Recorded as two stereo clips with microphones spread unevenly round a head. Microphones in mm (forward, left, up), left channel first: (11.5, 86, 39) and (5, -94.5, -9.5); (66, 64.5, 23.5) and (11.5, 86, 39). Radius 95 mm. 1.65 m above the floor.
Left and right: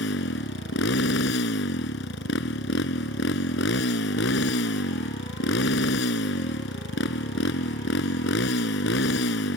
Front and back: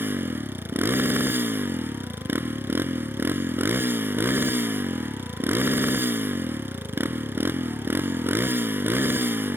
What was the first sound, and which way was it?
A motorcycle, 110° left.